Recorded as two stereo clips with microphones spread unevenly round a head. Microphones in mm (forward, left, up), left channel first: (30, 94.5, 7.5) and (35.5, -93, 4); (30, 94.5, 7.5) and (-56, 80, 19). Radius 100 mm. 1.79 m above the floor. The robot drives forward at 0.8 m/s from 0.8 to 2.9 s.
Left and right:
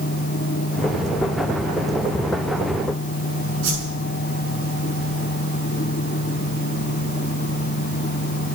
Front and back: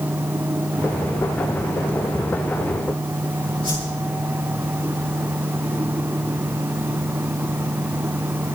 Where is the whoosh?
80° right, 6 m.